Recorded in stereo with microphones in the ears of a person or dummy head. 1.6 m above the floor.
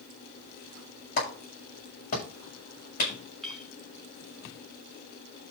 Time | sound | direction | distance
1.2 | a clap | 50° left (ahead or behind) | 7.5 m
3.4 | a clink | 5° left (ahead or behind) | 3.5 m